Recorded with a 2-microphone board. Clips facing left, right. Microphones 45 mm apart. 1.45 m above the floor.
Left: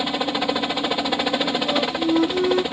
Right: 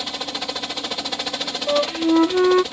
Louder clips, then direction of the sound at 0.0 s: Left 6 dB; 20° left (ahead or behind).